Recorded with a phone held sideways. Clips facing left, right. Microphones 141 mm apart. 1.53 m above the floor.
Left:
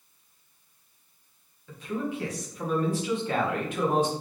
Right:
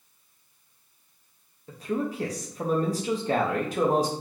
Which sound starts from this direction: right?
A man speaking, at 1.7 s.